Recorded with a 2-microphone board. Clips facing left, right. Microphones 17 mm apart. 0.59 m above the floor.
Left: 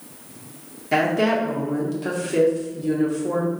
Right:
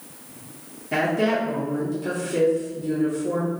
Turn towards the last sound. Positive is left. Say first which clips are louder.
# left 2 dB
turn(degrees=30)  # may be behind; listen again after turning